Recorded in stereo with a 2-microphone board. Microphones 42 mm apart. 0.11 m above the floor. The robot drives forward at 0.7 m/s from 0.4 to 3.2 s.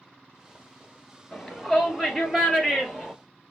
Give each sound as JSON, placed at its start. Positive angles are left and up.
{"t": 1.3, "sound": "a shout", "side_deg": 10, "distance_m": 2.0}